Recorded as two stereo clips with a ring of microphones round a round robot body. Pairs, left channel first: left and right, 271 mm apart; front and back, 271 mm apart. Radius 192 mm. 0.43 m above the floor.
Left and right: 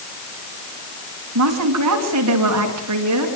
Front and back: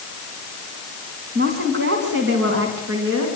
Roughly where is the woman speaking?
Behind right.